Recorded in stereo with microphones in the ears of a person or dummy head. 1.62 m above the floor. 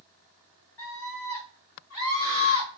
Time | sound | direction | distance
0.8 | a scream | 5° left (ahead or behind) | 1.6 m